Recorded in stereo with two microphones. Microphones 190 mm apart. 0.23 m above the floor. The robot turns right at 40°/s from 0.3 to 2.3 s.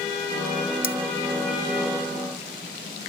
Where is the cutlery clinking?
50° left (ahead or behind); by 1.0 s 45° left (ahead or behind).